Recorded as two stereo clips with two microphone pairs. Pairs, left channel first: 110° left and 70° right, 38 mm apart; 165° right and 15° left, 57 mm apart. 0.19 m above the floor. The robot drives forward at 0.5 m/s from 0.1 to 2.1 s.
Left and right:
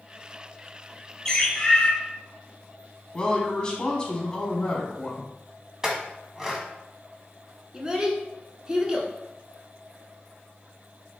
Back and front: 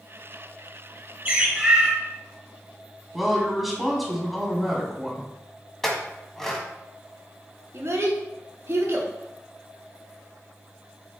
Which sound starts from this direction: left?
A woman speaking, at 3.1 s.